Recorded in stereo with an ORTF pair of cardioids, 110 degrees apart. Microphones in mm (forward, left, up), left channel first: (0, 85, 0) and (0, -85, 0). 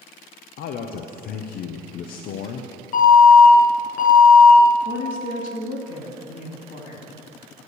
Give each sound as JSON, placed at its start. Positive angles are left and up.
{"t": 0.6, "sound": "a man speaking", "azimuth_deg": 65, "distance_m": 0.7}
{"t": 2.9, "sound": "an alarm", "azimuth_deg": 60, "distance_m": 3.0}
{"t": 4.8, "sound": "a woman speaking", "azimuth_deg": 55, "distance_m": 2.5}